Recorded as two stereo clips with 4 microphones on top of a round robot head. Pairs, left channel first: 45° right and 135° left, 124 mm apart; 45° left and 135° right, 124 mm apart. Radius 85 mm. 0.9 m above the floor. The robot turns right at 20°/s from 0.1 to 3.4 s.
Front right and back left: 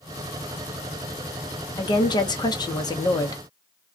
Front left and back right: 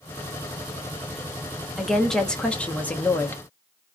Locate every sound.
1.8 s a woman speaking: 45° right, 0.9 m; by 3.4 s 10° right, 0.9 m